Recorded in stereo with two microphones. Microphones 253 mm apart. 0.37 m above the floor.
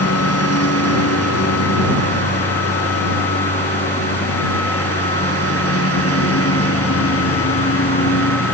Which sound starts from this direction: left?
A lawn mower, at 0.0 s.